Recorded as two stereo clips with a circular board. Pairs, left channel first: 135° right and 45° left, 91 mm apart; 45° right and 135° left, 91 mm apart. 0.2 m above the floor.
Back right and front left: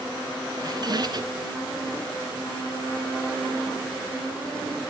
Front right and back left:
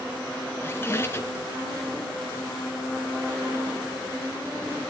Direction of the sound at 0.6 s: 15° left.